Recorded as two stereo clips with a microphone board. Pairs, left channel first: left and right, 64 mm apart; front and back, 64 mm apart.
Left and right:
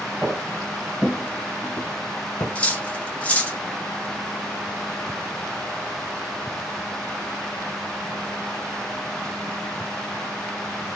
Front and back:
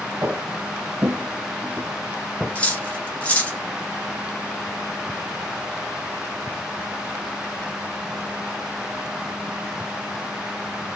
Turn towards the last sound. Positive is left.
turn(degrees=45)